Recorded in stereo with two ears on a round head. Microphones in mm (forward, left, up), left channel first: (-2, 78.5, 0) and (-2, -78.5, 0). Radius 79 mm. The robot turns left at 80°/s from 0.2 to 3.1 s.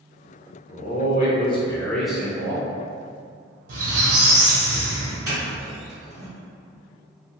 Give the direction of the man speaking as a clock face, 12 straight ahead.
8 o'clock.